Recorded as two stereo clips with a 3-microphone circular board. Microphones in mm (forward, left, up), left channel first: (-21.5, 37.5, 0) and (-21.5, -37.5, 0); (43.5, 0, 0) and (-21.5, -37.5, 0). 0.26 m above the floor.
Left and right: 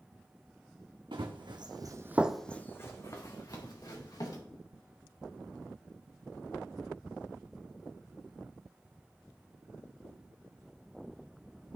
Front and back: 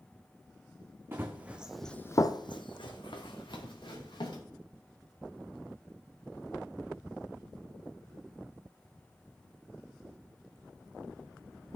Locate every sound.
1.1 s running footsteps: 90° right, 1.5 m; by 4.4 s 55° left, 3 m